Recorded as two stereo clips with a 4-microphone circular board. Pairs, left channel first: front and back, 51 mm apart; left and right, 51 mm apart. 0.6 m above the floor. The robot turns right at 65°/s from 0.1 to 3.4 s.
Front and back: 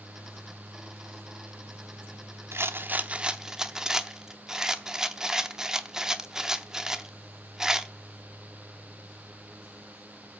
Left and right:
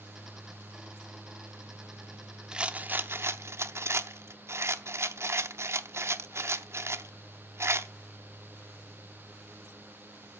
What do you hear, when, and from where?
2.5 s a rattle: 160° right, 0.7 m; by 7.9 s 105° right, 0.7 m